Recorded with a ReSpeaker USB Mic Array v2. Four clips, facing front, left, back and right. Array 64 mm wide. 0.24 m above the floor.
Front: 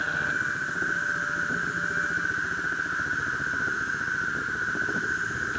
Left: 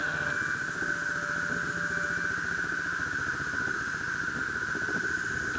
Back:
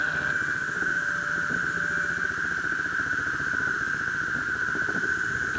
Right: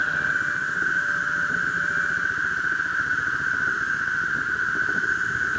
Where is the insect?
95° right, 2 m.